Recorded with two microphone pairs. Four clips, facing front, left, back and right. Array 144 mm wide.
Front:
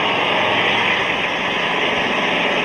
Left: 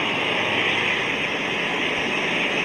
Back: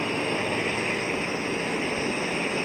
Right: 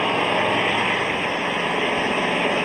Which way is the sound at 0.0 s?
35° right.